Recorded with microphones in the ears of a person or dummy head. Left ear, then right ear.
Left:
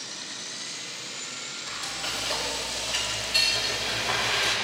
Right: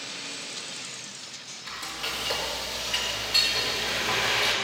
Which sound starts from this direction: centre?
Frying, at 1.7 s.